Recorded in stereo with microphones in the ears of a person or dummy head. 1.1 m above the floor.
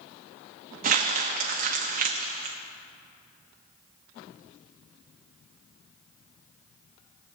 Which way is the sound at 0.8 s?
45° right (ahead or behind).